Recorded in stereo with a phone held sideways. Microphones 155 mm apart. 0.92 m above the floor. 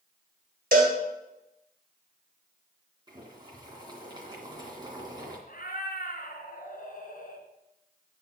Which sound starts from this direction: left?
A cat meowing, at 5.5 s.